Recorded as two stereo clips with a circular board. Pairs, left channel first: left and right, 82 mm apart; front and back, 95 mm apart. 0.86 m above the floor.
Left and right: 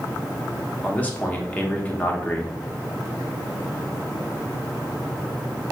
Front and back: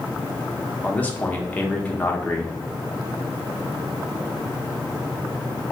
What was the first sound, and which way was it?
A man speaking, 45° left.